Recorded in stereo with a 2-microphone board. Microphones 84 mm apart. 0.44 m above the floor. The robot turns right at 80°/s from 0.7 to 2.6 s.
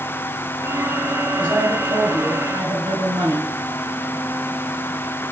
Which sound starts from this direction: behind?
A man speaking, at 1.4 s.